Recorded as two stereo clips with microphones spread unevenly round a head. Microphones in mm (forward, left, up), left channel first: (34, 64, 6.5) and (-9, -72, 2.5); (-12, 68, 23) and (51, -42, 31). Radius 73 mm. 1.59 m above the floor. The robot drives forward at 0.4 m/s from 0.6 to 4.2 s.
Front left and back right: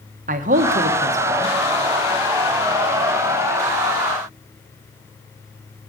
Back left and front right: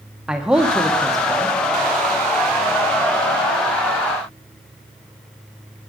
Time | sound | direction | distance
0.3 | a man speaking | 145° right | 1.0 m